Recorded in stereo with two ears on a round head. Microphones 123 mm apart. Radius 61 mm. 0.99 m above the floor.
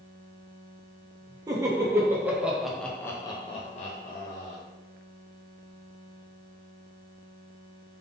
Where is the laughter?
25° right (ahead or behind), 1.2 m; by 4.6 s 65° left (ahead or behind), 0.9 m.